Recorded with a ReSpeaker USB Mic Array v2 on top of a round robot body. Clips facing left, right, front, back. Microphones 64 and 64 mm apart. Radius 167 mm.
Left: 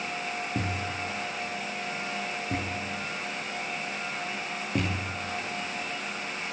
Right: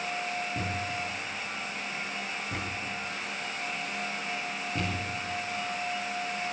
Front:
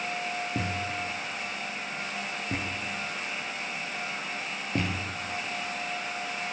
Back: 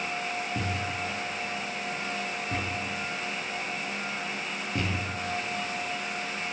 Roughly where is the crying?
No crying in this recording.